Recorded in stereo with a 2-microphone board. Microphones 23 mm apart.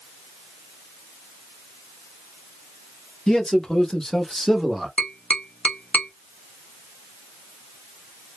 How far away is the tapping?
About 0.6 m.